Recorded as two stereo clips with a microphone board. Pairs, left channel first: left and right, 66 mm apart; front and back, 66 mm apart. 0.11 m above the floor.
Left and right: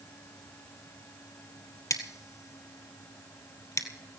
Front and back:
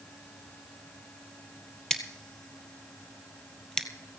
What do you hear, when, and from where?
1.9 s scissors: 75° left, 1.5 m